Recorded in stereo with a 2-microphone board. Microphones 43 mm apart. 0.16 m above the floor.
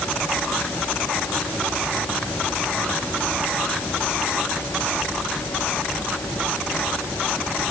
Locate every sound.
Only background noise.